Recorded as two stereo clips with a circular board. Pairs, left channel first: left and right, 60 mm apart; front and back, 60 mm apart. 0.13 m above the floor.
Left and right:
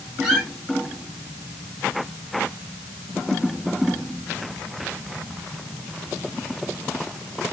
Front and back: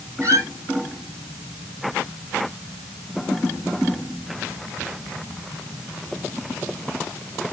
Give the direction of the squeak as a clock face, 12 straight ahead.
5 o'clock.